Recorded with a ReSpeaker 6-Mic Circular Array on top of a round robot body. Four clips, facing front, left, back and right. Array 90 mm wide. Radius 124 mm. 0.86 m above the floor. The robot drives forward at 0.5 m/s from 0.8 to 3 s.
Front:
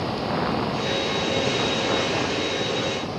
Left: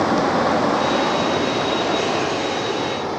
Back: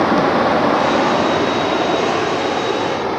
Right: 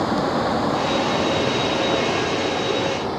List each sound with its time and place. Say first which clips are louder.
0.0 s running water: left 3 dB, back 11 dB; 165° left, 1.0 m; by 3.2 s 175° left, 2 m